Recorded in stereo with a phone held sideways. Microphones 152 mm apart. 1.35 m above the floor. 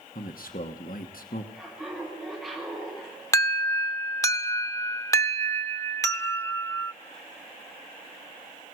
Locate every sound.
0.1 s a man speaking: 75° left (ahead or behind), 1.2 m
1.5 s laughter: 5° left (ahead or behind), 10 m
3.3 s an alarm: 20° left (ahead or behind), 0.9 m